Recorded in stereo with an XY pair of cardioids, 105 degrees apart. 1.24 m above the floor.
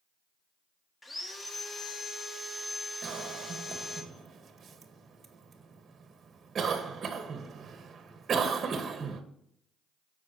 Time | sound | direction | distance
1.0 | sawing | 20° left | 1.7 m
3.0 | a cough | 45° right | 1.5 m